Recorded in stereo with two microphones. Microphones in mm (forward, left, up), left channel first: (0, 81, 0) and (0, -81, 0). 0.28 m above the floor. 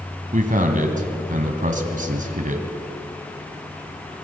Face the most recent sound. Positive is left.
turn(degrees=-55)  # may be behind; listen again after turning